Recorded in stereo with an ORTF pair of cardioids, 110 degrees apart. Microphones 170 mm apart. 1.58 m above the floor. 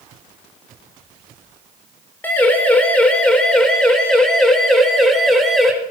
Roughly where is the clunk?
No clunk in this recording.